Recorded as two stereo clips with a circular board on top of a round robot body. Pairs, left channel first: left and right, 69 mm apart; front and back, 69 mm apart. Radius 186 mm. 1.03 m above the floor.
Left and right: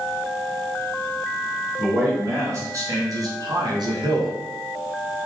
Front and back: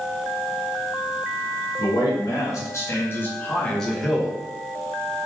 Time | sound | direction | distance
1.8 | a man speaking | 35° right | 2.5 m